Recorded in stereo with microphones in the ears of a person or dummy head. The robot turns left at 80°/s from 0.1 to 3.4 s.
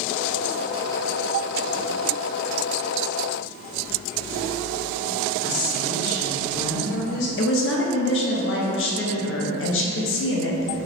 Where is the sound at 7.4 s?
60° left (ahead or behind), 0.6 m.